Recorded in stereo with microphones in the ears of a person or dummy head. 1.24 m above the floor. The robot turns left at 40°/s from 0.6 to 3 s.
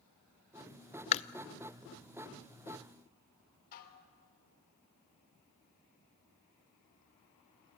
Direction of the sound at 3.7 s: 50° left (ahead or behind).